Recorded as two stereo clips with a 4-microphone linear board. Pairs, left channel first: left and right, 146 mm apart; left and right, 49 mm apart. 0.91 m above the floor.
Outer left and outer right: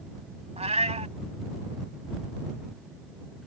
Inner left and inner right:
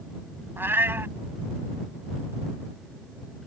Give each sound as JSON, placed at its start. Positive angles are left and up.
{"t": 0.6, "sound": "a cat meowing", "side_deg": -50}